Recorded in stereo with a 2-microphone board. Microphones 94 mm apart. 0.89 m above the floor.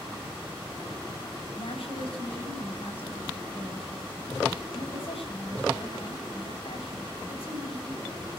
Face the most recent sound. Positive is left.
turn(degrees=80)